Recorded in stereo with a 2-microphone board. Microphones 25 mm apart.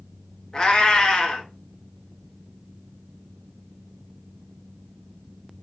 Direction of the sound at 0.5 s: 30° left (ahead or behind).